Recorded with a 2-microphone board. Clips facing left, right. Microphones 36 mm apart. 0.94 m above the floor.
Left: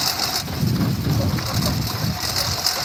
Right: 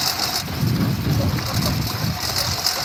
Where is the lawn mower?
Centre (ahead or behind).